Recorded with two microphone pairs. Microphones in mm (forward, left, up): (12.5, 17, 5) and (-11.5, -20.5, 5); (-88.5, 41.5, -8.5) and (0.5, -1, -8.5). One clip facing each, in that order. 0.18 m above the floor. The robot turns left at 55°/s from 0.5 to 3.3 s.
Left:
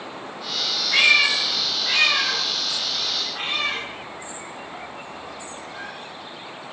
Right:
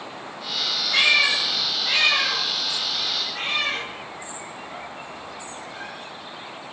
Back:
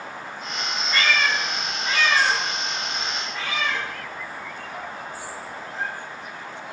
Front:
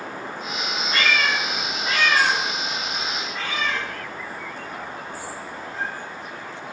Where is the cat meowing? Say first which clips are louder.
Left 2 dB, even; 15° left, 1.6 m; by 5.9 s 115° right, 1.6 m.